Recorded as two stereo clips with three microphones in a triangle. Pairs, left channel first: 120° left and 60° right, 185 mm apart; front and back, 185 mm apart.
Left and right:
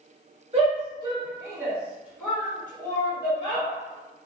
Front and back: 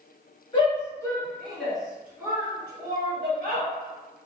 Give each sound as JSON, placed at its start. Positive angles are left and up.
{"t": 0.5, "sound": "a shout", "azimuth_deg": -35, "distance_m": 1.7}